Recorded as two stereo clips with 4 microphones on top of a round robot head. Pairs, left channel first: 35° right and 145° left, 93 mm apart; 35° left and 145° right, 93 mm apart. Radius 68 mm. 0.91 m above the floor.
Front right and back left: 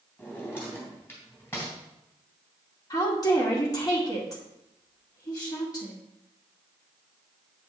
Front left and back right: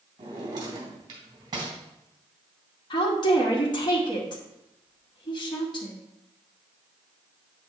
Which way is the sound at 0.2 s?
100° right.